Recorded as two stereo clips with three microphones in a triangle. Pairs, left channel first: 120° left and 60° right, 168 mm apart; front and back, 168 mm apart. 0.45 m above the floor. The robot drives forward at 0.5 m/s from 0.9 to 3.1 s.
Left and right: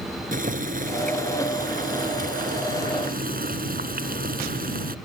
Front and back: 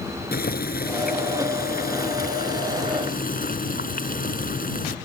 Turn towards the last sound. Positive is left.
turn(degrees=-30)